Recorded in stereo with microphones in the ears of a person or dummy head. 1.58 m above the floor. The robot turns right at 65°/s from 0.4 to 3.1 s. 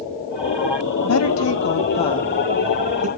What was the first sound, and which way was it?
A woman speaking, 80° left.